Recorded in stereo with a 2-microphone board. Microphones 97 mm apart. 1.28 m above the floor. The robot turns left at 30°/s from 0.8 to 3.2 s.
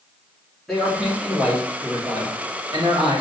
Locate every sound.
0.7 s a man speaking: straight ahead, 2 m; by 3.2 s 70° right, 2 m